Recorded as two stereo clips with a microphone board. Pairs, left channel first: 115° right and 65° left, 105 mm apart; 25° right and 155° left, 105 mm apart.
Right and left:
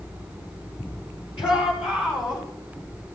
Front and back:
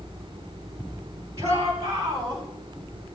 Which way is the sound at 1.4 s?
145° right.